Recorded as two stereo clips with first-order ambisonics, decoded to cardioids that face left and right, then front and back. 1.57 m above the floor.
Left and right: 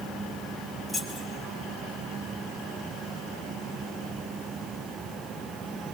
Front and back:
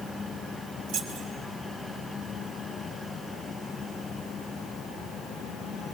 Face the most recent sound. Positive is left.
turn(degrees=180)